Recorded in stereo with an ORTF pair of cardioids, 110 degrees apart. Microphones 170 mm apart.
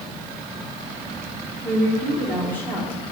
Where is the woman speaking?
10° left, 3.5 m.